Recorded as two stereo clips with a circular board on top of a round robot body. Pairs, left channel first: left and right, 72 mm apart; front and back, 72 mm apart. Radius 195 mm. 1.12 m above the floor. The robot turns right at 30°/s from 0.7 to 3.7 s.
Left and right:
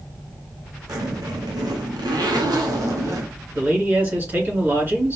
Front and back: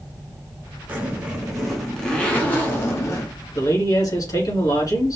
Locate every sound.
0.9 s a zipper: 115° right, 1.4 m; by 3.4 s 40° right, 1.4 m
3.5 s a man speaking: 30° right, 3 m; by 5.2 s 25° right, 3 m